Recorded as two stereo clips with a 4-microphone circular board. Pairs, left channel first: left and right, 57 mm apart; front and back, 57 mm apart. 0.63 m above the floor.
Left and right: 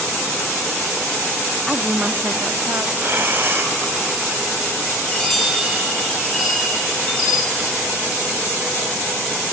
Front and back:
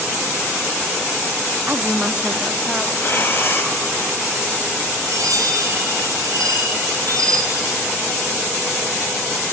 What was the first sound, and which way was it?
A woman speaking, 175° right.